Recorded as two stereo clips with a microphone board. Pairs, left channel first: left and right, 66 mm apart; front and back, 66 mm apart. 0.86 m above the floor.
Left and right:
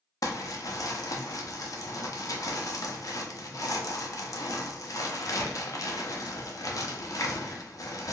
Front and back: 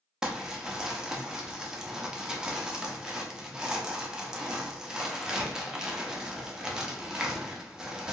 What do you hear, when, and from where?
0.2 s crumpling: 105° left, 0.6 m